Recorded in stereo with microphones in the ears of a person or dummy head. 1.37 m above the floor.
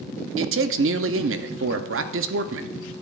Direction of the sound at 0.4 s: 60° right (ahead or behind).